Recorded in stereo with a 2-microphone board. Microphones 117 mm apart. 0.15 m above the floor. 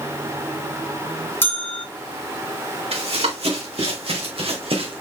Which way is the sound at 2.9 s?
65° right (ahead or behind).